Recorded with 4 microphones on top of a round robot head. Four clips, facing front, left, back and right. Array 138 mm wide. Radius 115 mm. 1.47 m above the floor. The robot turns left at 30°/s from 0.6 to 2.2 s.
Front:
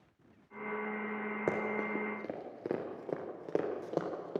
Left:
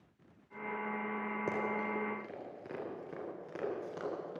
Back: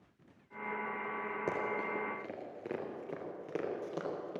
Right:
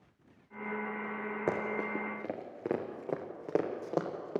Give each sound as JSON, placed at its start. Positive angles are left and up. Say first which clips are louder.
{"t": 1.5, "sound": "running footsteps", "louder": "right 3 dB, front 2 dB", "azimuth_deg": -45, "distance_m": 1.5}